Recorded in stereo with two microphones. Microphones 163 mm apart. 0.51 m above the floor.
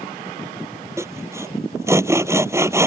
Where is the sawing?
15° right (ahead or behind).